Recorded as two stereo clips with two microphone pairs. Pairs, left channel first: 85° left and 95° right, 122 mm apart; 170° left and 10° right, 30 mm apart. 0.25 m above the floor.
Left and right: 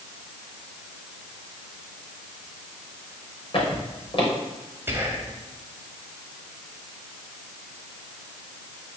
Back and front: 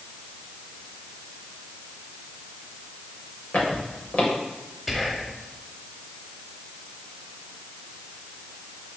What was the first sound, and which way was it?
Footsteps, 130° left.